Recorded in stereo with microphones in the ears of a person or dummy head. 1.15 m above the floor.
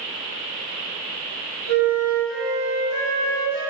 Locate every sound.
1.7 s a flute: 60° left (ahead or behind), 3 m